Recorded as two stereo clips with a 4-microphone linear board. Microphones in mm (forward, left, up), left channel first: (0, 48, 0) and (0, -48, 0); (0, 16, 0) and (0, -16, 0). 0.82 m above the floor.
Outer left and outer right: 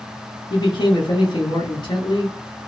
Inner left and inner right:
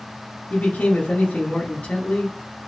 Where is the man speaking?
50° left (ahead or behind), 1.0 m.